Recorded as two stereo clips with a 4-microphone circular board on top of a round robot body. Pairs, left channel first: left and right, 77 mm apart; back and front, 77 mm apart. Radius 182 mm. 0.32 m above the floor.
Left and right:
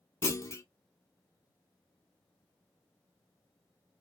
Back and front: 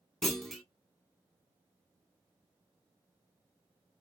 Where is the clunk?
95° left, 0.9 m.